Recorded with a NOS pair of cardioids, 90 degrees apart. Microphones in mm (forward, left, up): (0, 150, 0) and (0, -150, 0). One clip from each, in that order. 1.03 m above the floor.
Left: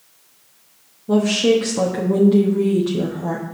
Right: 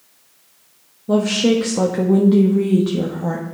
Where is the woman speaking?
15° right, 1.3 m.